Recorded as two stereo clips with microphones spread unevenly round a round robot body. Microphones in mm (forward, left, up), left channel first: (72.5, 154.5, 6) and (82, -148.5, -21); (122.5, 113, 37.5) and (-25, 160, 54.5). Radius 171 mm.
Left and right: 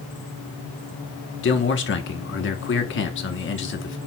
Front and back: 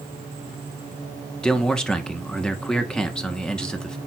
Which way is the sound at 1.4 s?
55° left.